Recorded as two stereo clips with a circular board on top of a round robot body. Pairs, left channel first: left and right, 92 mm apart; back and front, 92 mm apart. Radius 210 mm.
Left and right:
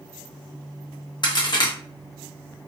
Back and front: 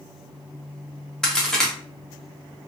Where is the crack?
100° left, 1.3 m.